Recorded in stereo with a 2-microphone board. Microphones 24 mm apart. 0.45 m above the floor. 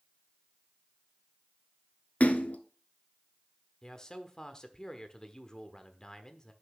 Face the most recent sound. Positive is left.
turn(degrees=30)  # may be behind; listen again after turning